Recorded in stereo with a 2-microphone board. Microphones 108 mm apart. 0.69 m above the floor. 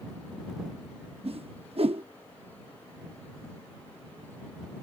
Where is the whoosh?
65° right (ahead or behind).